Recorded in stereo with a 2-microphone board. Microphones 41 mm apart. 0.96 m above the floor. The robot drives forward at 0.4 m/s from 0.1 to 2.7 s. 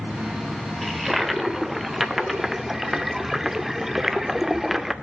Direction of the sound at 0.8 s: 5° right (ahead or behind).